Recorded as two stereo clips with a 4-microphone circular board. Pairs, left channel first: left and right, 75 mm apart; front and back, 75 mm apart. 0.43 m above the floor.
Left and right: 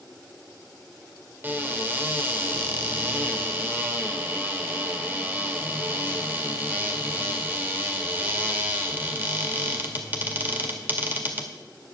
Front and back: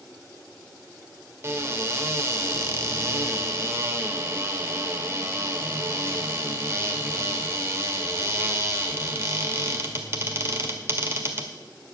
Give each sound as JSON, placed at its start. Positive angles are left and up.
{"t": 1.4, "sound": "a cupboard door", "azimuth_deg": -145, "distance_m": 1.7}